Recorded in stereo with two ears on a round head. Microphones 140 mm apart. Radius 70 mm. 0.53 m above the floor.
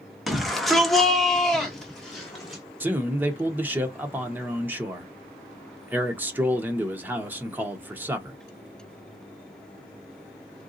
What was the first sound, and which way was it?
A shout, centre (ahead or behind).